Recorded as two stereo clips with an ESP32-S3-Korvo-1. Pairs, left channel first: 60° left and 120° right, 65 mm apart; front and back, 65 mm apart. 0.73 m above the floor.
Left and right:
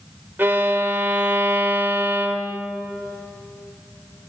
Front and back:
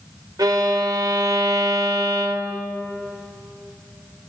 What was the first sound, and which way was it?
A violin, 175° right.